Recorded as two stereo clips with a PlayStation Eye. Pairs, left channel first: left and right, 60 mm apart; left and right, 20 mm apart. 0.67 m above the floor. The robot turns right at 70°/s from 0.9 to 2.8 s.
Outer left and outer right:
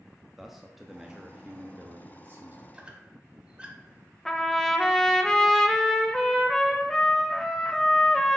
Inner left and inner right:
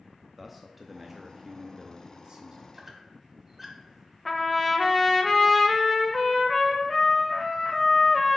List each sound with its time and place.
0.4 s a man speaking: 175° right, 0.6 m; by 2.6 s 55° right, 0.6 m
2.7 s a squeak: 15° right (ahead or behind), 0.9 m
4.2 s a trumpet: 10° left (ahead or behind), 0.6 m